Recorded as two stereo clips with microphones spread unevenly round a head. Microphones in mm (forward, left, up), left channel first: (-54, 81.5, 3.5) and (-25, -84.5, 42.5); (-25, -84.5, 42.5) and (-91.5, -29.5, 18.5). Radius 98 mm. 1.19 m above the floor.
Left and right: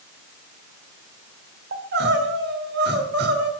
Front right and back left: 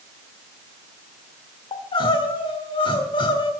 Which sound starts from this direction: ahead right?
Crying, at 1.7 s.